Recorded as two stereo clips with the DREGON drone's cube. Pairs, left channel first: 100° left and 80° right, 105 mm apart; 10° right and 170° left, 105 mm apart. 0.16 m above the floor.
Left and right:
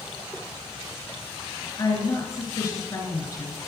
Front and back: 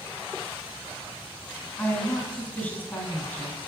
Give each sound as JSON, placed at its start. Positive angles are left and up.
{"t": 1.8, "sound": "a woman speaking", "azimuth_deg": 55, "distance_m": 1.5}